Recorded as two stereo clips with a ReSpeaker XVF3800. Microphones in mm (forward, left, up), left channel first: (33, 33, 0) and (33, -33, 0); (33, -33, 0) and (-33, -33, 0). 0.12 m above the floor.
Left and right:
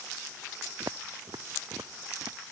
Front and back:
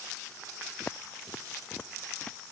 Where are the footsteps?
60° right; by 2.4 s 70° right.